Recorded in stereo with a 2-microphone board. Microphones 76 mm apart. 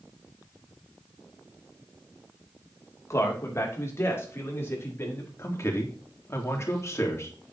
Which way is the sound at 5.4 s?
35° left (ahead or behind).